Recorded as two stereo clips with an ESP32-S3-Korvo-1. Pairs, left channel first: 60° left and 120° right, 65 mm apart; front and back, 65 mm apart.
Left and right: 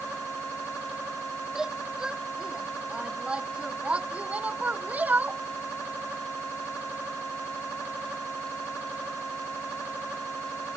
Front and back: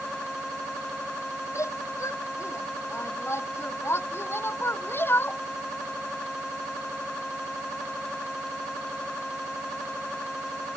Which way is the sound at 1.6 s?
40° right.